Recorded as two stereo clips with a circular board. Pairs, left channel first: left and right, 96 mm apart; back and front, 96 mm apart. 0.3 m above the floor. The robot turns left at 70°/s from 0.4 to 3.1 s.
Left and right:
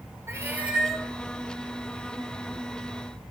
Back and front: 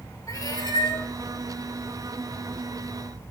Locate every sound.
0.3 s a cat meowing: 145° right, 0.9 m; by 1.1 s 170° left, 0.9 m